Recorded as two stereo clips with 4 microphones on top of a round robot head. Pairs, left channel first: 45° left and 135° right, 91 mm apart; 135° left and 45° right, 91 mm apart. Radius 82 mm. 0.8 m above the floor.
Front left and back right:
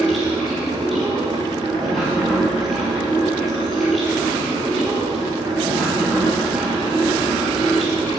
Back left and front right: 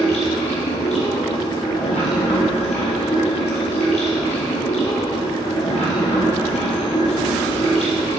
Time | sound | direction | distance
0.0 | running water | 135° left | 3 m